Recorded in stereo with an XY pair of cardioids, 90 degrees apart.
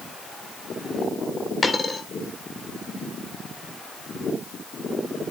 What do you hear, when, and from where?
1.6 s a dropped coin: 30° left, 2 m